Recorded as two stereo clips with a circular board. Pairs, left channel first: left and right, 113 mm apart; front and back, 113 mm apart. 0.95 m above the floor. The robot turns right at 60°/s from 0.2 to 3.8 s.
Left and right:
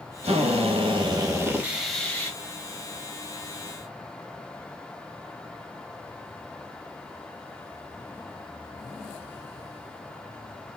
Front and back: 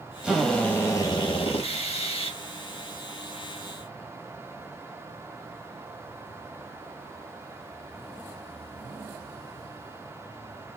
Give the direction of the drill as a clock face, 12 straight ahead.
3 o'clock.